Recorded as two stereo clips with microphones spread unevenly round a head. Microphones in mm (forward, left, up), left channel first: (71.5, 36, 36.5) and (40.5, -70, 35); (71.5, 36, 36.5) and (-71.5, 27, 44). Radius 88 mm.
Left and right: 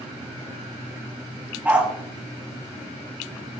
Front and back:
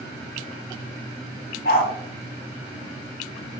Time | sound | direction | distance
1.6 | a dog barking | 30° right | 1.7 m